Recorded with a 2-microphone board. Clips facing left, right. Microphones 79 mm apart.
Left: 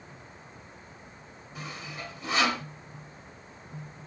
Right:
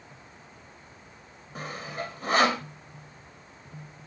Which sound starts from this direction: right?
Sawing, at 1.6 s.